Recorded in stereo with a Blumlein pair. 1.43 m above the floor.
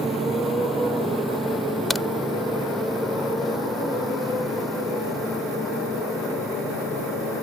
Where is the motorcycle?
15° right; by 7.4 s 10° left.